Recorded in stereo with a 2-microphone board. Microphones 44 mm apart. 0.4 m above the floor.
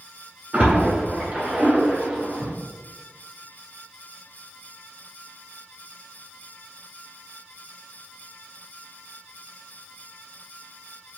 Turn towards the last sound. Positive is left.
turn(degrees=-25)  # may be behind; listen again after turning